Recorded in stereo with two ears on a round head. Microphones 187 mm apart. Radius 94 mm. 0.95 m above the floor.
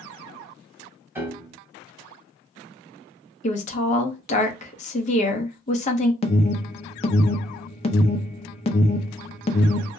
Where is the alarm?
30° left (ahead or behind), 0.6 m.